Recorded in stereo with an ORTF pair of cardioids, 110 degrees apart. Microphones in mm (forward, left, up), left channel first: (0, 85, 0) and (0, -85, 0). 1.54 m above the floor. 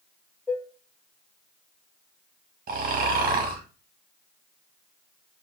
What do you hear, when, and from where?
0.5 s dishes clattering: 5° left, 1.7 m
2.7 s snoring: 55° right, 1.6 m